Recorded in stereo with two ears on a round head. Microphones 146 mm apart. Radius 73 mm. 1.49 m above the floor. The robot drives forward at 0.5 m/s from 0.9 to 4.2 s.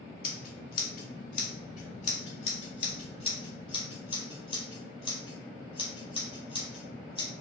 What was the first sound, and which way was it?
Scissors, 60° left (ahead or behind).